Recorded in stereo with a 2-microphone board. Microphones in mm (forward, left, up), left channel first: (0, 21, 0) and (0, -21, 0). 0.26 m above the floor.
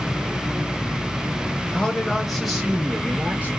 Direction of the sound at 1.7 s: 20° left (ahead or behind).